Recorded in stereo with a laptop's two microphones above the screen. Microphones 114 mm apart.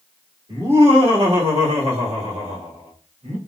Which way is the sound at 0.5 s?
60° right (ahead or behind).